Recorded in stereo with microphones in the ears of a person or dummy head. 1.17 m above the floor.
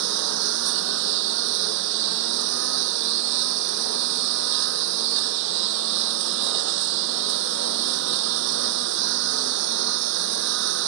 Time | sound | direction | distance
0.0 | a lawn mower | 80° right | ?